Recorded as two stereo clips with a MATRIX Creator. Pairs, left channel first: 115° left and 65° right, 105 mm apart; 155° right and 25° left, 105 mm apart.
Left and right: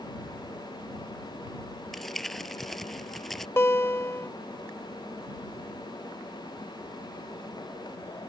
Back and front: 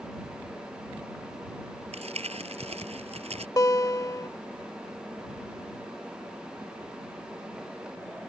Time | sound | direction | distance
1.9 | crumpling | 25° left | ?
3.6 | a guitar | 165° left | ?